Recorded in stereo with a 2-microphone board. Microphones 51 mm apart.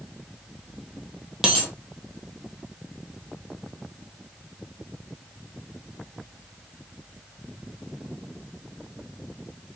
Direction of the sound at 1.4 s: 10° right (ahead or behind).